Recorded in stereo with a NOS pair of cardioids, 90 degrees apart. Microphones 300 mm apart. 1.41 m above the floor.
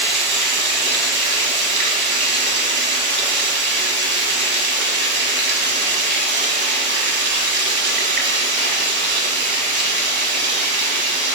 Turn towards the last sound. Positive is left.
turn(degrees=-35)